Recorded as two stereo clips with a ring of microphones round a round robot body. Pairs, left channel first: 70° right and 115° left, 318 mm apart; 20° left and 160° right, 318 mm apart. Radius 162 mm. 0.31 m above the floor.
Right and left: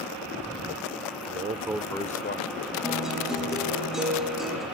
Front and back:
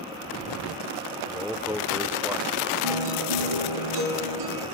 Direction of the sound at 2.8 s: 160° right.